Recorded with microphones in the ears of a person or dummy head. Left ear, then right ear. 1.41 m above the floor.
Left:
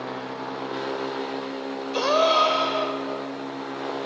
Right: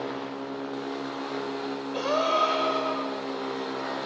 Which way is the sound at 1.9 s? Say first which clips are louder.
Left 5 dB; 40° left (ahead or behind).